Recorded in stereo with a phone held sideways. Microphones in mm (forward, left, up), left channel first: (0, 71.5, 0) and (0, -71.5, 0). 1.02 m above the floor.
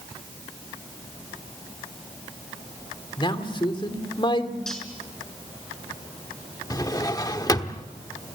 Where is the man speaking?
35° left (ahead or behind), 2.5 m.